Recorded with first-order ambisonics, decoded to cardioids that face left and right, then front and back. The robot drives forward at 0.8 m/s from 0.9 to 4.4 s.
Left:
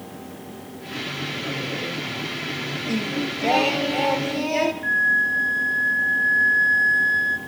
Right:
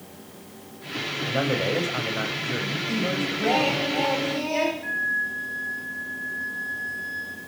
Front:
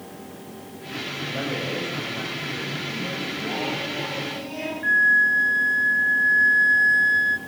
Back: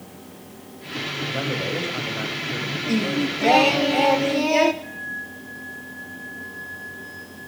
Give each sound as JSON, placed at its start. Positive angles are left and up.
{"t": 1.2, "sound": "a man speaking", "azimuth_deg": -100, "distance_m": 7.5}
{"t": 2.9, "sound": "singing", "azimuth_deg": 165, "distance_m": 1.6}
{"t": 4.8, "sound": "a flute", "azimuth_deg": 30, "distance_m": 2.5}